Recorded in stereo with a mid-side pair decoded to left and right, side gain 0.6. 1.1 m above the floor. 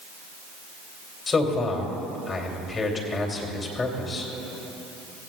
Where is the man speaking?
30° left, 2.5 m.